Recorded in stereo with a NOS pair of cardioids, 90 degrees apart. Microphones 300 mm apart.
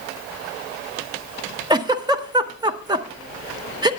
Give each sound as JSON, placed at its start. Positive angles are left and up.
{"t": 1.7, "sound": "a giggle", "azimuth_deg": -15, "distance_m": 0.8}